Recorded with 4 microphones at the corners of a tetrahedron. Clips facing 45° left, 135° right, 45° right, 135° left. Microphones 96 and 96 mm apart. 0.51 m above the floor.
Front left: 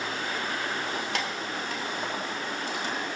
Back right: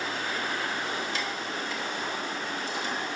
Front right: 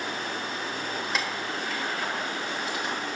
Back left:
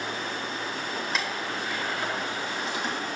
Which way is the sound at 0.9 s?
35° left.